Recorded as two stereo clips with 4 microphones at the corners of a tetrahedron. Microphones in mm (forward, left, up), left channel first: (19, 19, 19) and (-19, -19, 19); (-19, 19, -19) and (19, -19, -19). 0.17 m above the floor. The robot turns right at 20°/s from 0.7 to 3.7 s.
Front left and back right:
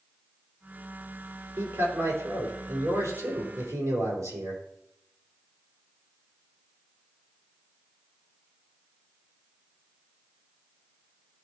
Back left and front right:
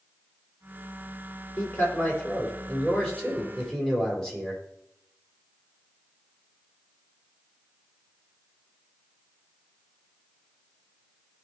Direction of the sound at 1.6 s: 175° left.